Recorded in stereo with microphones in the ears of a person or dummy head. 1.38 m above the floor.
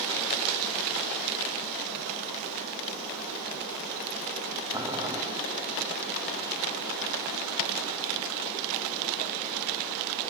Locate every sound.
4.7 s boiling: 20° right (ahead or behind), 0.6 m